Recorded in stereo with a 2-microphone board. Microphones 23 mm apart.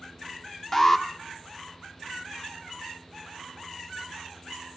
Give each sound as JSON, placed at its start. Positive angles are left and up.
{"t": 0.7, "sound": "an alarm", "side_deg": 20, "distance_m": 0.9}